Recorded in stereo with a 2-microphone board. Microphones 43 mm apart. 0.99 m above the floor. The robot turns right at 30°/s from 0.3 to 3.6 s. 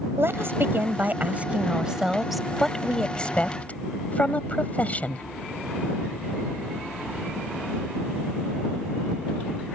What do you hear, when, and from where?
0.2 s a woman speaking: 60° right (ahead or behind); by 5.2 s 35° left (ahead or behind)